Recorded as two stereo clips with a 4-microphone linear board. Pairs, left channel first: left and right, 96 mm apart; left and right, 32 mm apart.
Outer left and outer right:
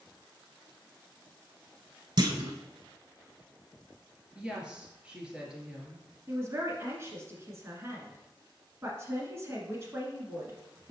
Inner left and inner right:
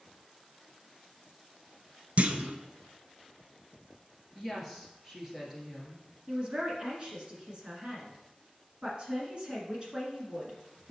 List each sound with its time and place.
2.2 s a clunk: 55° right (ahead or behind), 0.7 m
4.3 s a woman speaking: 10° right (ahead or behind), 1.8 m
6.3 s a man speaking: 30° right (ahead or behind), 1.7 m